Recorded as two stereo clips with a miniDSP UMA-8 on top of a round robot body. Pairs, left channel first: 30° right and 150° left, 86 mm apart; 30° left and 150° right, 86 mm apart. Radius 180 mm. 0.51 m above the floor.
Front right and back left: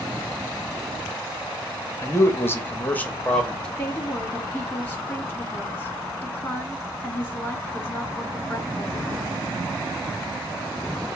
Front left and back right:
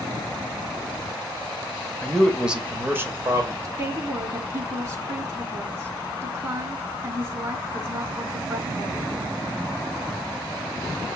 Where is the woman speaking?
100° right, 1.8 m.